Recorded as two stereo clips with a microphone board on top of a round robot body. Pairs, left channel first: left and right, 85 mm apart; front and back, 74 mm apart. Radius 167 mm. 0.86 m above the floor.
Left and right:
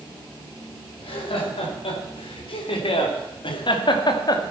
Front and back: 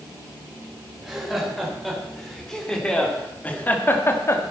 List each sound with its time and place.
1.0 s laughter: 95° left, 5 m; by 4.4 s 50° left, 2 m